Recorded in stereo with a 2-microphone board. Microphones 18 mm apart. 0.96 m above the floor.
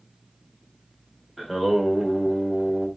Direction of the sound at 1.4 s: Centre (ahead or behind).